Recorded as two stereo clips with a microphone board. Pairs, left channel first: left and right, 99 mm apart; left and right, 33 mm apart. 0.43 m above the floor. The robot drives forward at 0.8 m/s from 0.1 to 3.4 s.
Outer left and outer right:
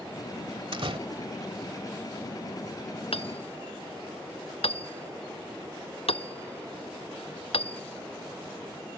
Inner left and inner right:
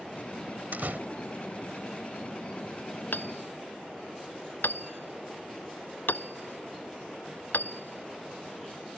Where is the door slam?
65° right (ahead or behind).